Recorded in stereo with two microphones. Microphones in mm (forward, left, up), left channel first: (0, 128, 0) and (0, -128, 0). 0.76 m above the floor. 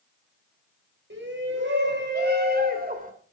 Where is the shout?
50° right (ahead or behind), 4.5 m; by 3.1 s 30° right (ahead or behind), 3.5 m.